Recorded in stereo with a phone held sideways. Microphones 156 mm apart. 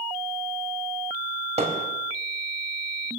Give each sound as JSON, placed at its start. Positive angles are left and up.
{"t": 1.6, "sound": "hammering", "side_deg": -45, "distance_m": 4.0}